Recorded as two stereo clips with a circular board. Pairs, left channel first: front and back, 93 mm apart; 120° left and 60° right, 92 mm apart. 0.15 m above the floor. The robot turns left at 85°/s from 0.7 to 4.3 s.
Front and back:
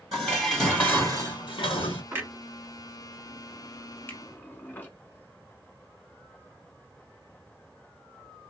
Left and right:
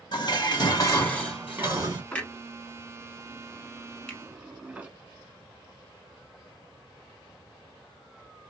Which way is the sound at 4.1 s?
50° left.